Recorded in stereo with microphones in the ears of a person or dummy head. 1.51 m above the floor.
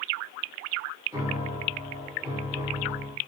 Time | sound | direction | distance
1.1 | a piano | 20° right (ahead or behind) | 1.0 m